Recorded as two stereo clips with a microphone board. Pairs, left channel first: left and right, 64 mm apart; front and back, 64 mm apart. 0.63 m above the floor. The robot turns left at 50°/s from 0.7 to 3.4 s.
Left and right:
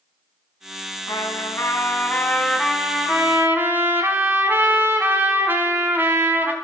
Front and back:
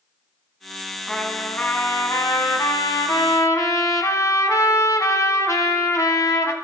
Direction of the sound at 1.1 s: 85° left.